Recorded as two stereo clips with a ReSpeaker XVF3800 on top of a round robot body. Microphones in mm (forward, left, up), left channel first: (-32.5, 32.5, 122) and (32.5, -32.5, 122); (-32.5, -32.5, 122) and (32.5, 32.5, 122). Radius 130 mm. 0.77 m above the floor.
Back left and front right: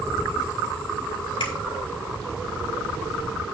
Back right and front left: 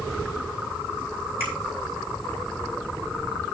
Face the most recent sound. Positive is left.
turn(degrees=110)